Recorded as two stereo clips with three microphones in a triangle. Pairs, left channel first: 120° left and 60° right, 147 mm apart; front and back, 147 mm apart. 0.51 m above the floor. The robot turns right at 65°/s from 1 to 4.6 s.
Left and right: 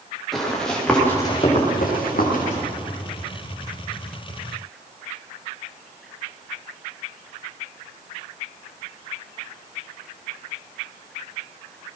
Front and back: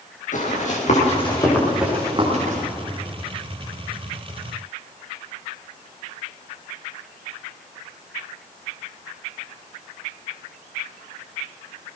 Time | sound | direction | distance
0.3 | running footsteps | 30° left | 7.5 m